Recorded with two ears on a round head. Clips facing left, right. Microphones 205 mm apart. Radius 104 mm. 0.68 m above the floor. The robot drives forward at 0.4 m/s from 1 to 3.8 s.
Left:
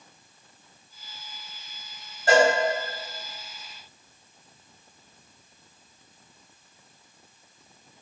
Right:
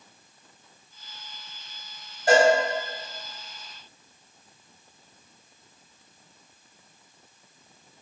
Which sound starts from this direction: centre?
A cowbell, at 2.3 s.